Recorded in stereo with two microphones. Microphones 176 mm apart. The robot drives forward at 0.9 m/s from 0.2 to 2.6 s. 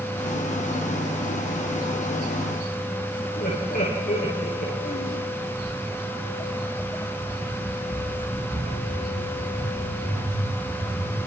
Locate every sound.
3.4 s laughter: 60° left (ahead or behind), 9.5 m
5.6 s footsteps: 15° right (ahead or behind), 3 m; by 11.2 s 40° left (ahead or behind), 10 m